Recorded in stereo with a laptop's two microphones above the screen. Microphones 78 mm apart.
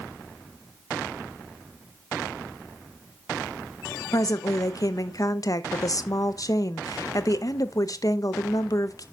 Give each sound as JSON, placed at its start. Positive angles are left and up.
{"t": 4.1, "sound": "a woman speaking", "side_deg": 50, "distance_m": 0.5}